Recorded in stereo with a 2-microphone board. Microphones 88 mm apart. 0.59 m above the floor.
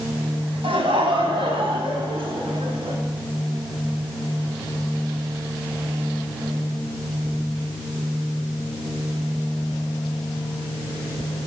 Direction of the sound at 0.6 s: 80° right.